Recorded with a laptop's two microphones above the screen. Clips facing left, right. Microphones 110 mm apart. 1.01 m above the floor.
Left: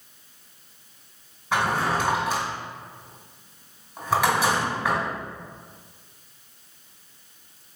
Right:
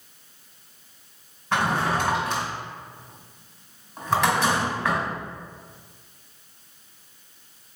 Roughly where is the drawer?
Centre.